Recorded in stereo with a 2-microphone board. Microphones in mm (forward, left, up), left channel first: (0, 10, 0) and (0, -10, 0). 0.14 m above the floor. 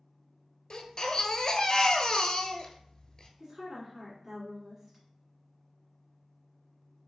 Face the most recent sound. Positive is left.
turn(degrees=-25)  # may be behind; listen again after turning